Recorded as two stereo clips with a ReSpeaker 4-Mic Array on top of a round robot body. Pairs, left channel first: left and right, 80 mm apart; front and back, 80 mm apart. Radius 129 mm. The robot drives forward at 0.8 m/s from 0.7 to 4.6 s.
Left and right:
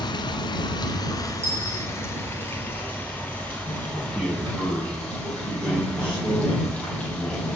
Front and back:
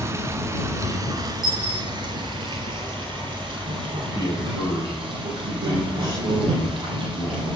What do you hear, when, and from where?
0.0 s running water: 125° left, 1.2 m; by 7.6 s 165° left, 4 m
1.4 s a dropped coin: 150° right, 6.5 m
4.1 s a man speaking: 165° right, 8 m